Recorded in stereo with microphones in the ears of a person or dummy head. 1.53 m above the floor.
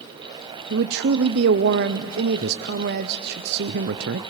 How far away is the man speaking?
About 0.6 m.